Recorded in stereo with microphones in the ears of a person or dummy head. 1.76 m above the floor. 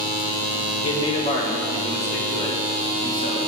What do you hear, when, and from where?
0.8 s a man speaking: 30° left (ahead or behind), 1.1 m; by 3.4 s 45° left (ahead or behind), 3 m